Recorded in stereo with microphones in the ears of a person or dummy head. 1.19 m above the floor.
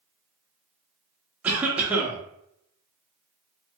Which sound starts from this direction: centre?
A cough, at 1.4 s.